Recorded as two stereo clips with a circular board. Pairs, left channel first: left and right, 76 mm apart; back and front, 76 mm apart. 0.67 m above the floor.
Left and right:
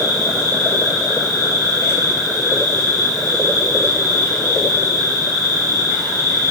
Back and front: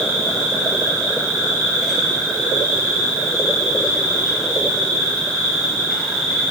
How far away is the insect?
About 1.2 m.